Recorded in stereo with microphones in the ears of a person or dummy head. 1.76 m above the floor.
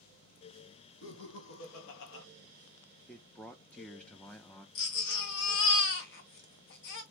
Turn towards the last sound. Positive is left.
turn(degrees=55)  # may be behind; listen again after turning